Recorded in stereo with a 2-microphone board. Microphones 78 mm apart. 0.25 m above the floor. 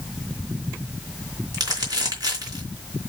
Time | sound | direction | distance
1.5 | crumpling | 50° right (ahead or behind) | 3.5 m